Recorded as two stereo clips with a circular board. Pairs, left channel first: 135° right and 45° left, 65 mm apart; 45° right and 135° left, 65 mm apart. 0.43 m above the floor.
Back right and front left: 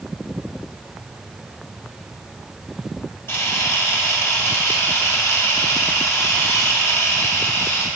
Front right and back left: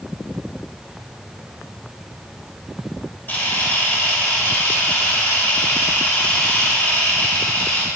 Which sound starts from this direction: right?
A camera shutter, at 3.3 s.